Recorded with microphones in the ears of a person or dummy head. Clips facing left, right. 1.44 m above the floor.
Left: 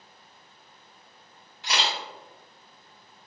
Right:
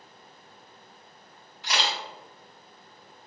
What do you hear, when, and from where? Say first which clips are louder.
1.6 s a camera shutter: even; 55° left (ahead or behind), 1.9 m